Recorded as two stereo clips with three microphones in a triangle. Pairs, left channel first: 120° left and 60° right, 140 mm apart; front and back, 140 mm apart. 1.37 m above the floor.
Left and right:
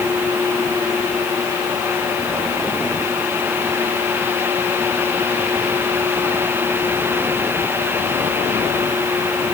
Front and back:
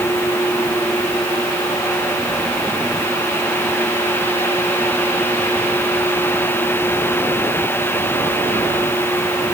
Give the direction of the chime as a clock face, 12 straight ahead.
No chime in this recording.